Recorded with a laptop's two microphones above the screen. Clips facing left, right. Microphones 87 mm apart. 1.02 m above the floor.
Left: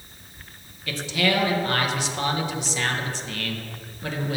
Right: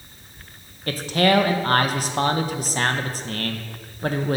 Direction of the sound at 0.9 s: 45° right (ahead or behind).